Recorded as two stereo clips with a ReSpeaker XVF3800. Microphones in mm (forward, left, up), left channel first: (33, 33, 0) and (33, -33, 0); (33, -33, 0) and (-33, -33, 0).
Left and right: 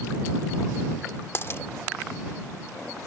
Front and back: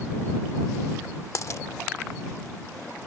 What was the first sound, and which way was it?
A dropped coin, 35° left.